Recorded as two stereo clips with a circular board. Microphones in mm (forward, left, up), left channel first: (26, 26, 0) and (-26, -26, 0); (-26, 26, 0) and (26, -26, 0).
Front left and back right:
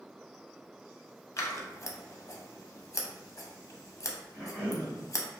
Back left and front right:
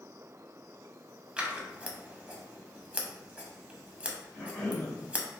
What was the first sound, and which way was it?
Scissors, 25° left.